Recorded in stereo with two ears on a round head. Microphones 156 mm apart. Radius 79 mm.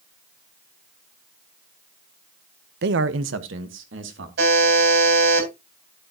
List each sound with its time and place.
2.8 s a man speaking: 60° right (ahead or behind), 0.7 m; by 4.3 s 70° right (ahead or behind), 3 m
4.4 s a buzzer: 65° right (ahead or behind), 8 m